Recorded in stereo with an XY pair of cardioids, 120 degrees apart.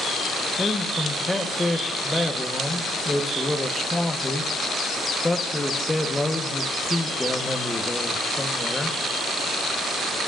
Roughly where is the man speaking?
Ahead.